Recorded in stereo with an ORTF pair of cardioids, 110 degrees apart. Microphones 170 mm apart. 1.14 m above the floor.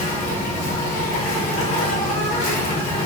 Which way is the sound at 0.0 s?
45° left.